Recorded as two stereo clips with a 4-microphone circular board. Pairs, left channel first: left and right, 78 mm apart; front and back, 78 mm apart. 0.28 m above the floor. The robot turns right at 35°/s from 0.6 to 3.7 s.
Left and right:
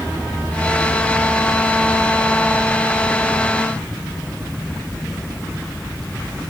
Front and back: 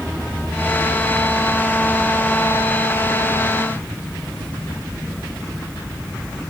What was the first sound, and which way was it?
Only background noise.